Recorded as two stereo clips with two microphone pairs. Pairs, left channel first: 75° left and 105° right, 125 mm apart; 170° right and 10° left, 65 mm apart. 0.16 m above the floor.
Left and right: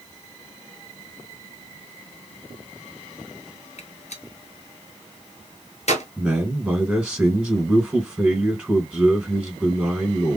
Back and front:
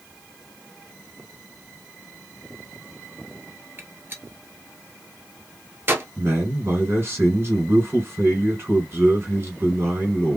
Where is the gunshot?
60° left, 1.0 m.